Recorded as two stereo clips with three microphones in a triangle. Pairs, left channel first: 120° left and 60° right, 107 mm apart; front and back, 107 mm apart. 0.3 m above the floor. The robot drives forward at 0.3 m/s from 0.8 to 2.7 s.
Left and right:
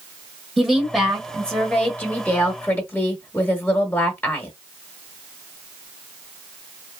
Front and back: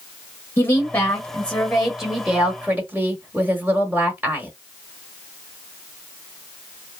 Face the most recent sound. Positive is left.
turn(degrees=140)